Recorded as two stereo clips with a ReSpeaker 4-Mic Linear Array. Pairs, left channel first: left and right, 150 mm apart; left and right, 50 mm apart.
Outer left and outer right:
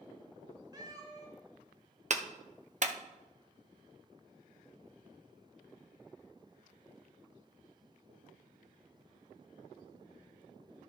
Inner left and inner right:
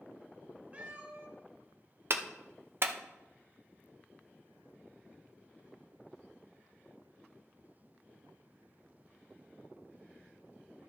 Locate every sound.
0.7 s a cat meowing: 25° right (ahead or behind), 1.5 m
2.1 s a clap: 50° right (ahead or behind), 0.7 m